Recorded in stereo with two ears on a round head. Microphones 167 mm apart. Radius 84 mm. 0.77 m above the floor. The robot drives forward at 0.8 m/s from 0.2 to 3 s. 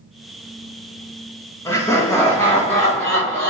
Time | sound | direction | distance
1.6 | laughter | 15° left (ahead or behind) | 0.7 m